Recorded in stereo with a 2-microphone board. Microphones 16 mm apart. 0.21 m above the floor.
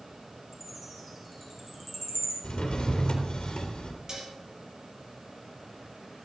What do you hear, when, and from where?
0.5 s a chime: 10° right (ahead or behind), 7.5 m
2.4 s a drawer: 75° left (ahead or behind), 2.5 m
4.1 s dishes clattering: 40° right (ahead or behind), 4 m